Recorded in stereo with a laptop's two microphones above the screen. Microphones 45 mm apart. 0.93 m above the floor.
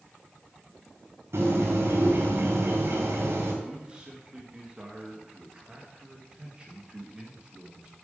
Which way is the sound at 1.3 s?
85° right.